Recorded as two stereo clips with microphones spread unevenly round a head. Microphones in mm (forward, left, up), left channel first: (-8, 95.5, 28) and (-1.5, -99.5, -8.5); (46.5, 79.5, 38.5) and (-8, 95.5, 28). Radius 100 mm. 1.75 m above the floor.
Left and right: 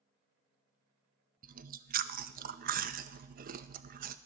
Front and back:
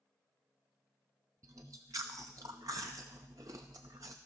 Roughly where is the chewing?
Behind right.